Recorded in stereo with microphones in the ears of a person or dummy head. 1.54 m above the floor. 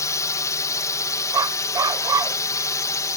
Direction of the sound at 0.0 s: 20° left (ahead or behind).